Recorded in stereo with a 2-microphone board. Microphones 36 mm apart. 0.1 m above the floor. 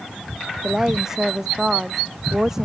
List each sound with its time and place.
0.6 s a woman speaking: 15° right (ahead or behind)